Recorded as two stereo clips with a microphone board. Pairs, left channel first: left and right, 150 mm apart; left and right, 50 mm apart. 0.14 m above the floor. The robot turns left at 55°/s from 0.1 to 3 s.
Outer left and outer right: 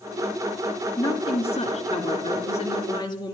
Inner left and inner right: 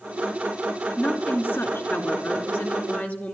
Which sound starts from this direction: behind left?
A woman speaking, at 1.0 s.